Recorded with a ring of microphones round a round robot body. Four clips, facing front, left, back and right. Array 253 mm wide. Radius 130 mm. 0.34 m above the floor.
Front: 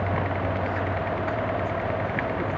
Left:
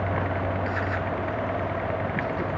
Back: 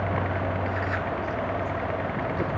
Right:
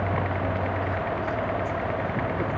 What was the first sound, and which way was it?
Only background noise.